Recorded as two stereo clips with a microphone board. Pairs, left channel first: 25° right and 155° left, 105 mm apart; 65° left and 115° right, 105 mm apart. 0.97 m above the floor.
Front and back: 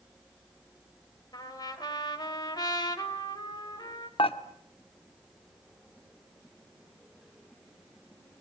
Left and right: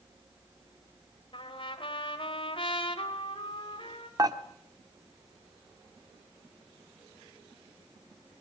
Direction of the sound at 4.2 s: 55° right.